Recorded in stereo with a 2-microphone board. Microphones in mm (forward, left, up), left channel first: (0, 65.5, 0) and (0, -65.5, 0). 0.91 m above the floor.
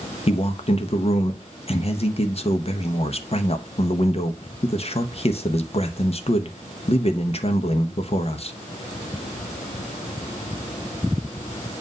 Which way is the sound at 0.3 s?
50° left (ahead or behind).